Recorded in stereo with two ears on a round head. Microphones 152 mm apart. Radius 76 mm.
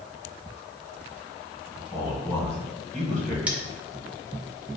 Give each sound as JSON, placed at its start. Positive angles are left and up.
{"t": 1.9, "sound": "a man speaking", "side_deg": 5, "distance_m": 1.9}
{"t": 3.5, "sound": "cutlery clinking", "side_deg": -10, "distance_m": 0.6}